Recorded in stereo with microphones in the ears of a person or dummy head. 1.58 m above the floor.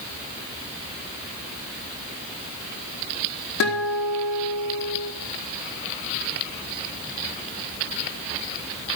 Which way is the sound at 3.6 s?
55° left (ahead or behind).